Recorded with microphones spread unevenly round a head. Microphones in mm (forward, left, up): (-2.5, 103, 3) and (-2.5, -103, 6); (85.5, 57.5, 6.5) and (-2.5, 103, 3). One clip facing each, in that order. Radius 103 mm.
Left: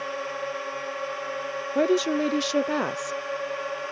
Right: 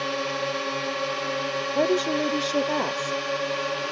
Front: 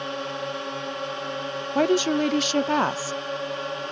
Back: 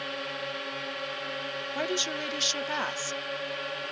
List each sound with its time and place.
0.0 s a drone: 90° right
1.8 s a woman speaking: 10° left